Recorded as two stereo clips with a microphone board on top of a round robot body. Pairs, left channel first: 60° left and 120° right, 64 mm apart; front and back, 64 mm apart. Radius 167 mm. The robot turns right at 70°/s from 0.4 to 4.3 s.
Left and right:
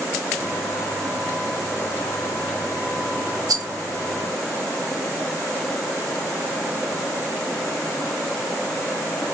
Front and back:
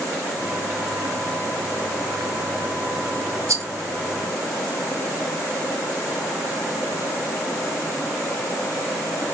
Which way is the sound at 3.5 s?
140° right.